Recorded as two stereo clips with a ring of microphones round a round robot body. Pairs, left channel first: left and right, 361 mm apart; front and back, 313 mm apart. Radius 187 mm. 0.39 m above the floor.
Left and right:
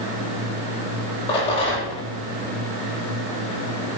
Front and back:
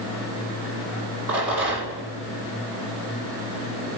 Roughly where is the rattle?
Behind.